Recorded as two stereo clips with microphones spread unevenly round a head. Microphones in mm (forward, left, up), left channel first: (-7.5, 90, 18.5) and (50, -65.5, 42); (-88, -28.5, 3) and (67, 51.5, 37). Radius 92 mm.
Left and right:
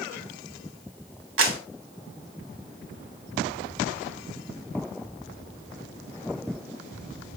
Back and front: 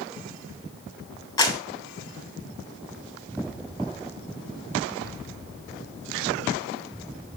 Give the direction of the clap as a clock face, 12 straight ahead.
3 o'clock.